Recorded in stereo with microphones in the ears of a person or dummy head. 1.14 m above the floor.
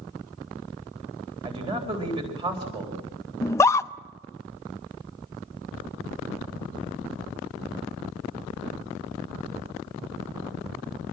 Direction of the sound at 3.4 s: 15° left (ahead or behind).